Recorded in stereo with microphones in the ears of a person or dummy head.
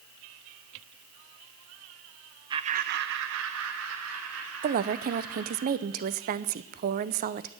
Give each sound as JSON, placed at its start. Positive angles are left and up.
{"t": 2.5, "sound": "laughter", "side_deg": -25, "distance_m": 0.8}
{"t": 4.6, "sound": "a woman speaking", "side_deg": -45, "distance_m": 0.7}